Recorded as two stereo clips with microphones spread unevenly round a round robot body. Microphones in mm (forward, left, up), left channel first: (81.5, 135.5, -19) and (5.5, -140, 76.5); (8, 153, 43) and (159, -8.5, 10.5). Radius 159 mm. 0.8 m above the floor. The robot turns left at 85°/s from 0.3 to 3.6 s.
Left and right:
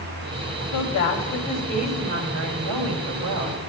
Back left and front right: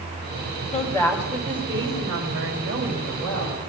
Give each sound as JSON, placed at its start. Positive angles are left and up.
{"t": 0.7, "sound": "a woman speaking", "azimuth_deg": 75, "distance_m": 3.5}